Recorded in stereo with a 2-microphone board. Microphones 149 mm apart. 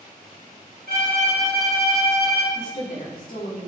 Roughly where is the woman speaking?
Left.